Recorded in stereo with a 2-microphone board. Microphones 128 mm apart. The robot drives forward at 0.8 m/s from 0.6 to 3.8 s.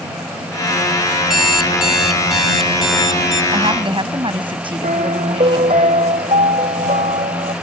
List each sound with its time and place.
1.2 s an alarm clock: 5° right (ahead or behind)
3.5 s a woman speaking: 40° right (ahead or behind)
4.8 s a piano: 70° right (ahead or behind)